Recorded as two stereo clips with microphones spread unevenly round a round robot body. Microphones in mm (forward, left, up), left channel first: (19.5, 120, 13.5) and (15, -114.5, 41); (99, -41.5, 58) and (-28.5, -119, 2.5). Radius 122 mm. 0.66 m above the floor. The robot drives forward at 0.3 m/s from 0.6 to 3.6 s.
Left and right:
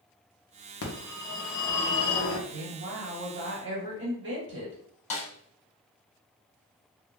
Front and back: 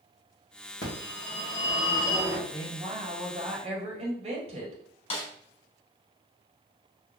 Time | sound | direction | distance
0.8 | a phone ringing | 75° left | 0.9 m
2.5 | a woman speaking | 120° right | 1.5 m
5.1 | a snare drum | 25° left | 0.8 m